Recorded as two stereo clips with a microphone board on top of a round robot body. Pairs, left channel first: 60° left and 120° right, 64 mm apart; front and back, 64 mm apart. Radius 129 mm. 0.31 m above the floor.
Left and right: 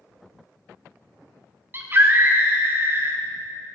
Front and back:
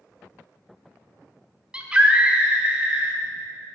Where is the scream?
120° right, 0.9 m.